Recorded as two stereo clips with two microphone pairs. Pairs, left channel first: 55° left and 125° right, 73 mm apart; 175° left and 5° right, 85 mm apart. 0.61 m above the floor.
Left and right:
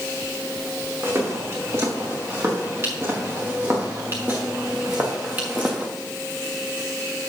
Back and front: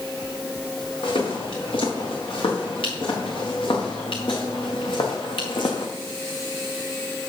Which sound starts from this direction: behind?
Footsteps, at 1.0 s.